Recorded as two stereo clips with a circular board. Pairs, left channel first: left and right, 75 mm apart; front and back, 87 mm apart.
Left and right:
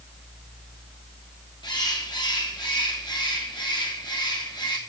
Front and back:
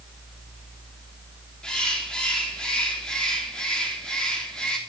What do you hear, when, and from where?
1.6 s a bird: 80° left, 3.5 m